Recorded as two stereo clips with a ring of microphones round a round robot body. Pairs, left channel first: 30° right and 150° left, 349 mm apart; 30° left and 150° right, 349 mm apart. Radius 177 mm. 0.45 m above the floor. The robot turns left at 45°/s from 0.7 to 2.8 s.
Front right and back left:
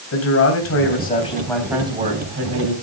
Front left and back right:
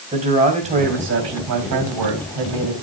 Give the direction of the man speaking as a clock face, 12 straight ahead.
3 o'clock.